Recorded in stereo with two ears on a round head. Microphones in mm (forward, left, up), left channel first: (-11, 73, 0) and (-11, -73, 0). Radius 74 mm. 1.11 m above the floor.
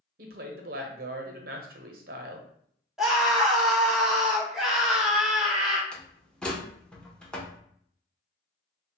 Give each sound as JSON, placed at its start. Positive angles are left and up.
{"t": 0.2, "sound": "a woman speaking", "side_deg": -55, "distance_m": 0.7}
{"t": 3.0, "sound": "a scream", "side_deg": -5, "distance_m": 0.8}
{"t": 5.9, "sound": "a door slam", "side_deg": 5, "distance_m": 0.6}